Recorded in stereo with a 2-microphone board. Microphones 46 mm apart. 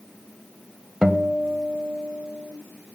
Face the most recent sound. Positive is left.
turn(degrees=-15)  # may be behind; listen again after turning